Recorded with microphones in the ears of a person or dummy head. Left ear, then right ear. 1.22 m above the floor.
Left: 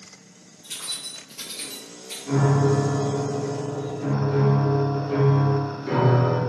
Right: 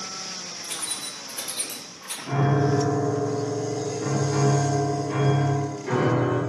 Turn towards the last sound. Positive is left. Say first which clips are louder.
# left 1 dB
turn(degrees=-25)  # may be behind; listen again after turning